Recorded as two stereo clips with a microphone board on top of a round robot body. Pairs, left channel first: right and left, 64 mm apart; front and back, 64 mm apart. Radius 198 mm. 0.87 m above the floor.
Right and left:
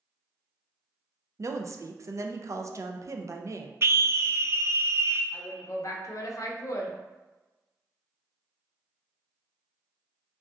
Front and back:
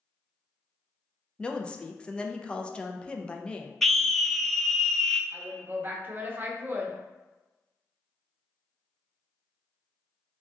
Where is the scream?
85° left, 0.6 m.